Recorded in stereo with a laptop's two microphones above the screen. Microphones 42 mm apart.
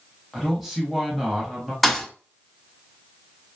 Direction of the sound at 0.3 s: 5° right (ahead or behind).